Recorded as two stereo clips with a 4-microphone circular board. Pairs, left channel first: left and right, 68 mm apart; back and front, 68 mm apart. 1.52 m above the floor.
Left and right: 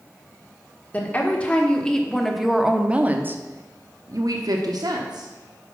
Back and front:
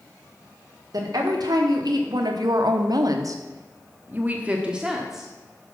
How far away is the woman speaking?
About 1.5 m.